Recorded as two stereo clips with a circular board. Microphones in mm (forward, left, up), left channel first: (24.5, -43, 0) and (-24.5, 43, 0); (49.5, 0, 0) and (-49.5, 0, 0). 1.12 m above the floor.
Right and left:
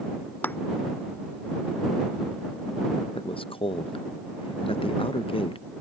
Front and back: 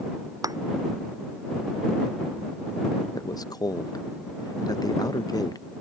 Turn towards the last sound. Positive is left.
turn(degrees=-50)